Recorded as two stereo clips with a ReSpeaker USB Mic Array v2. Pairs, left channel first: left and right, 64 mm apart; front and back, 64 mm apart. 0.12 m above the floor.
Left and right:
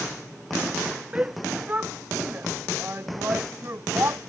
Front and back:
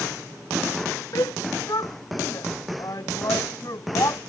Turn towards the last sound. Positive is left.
turn(degrees=-35)